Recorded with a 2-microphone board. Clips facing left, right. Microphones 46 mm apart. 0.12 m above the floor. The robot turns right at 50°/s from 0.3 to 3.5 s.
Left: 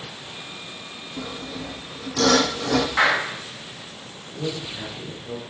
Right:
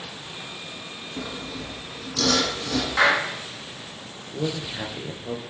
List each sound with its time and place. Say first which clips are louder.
1.2 s sawing: left 1 dB; 10° right, 2.5 m; by 2.9 s 75° left, 2.5 m
3.0 s a clap: right 2 dB; 10° left (ahead or behind), 7 m; by 3.3 s 25° left (ahead or behind), 7 m
4.3 s a man speaking: right 1 dB; 35° right (ahead or behind), 2.5 m